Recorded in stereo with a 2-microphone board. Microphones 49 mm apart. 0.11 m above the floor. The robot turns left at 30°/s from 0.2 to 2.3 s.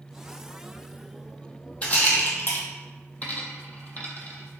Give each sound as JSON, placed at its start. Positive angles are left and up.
{"t": 1.8, "sound": "a rattle", "side_deg": 25, "distance_m": 0.9}
{"t": 3.2, "sound": "a dropped coin", "side_deg": 35, "distance_m": 0.7}